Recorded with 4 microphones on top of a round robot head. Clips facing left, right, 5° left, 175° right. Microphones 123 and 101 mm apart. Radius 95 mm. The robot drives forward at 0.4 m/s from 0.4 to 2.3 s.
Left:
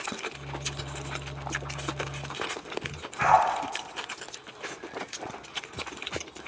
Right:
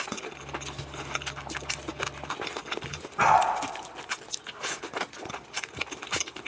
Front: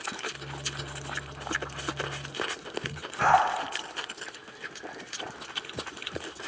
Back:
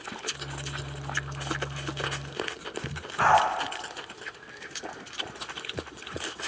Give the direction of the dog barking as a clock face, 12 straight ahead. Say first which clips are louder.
Even, back 1 dB; 4 o'clock.